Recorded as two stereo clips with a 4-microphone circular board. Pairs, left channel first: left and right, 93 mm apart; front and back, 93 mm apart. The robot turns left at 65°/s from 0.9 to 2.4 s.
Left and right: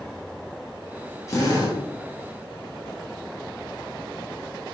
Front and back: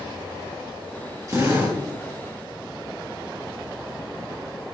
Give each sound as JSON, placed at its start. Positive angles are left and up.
{"t": 1.3, "sound": "a drill", "azimuth_deg": 140, "distance_m": 3.0}